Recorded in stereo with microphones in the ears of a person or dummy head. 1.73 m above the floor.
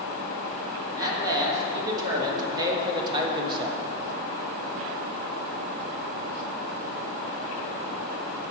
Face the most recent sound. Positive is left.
turn(degrees=-30)  # may be behind; listen again after turning